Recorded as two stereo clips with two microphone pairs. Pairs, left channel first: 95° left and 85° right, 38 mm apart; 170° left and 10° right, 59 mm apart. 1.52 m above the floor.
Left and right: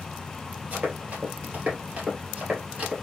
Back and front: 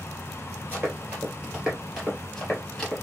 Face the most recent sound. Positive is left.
turn(degrees=-115)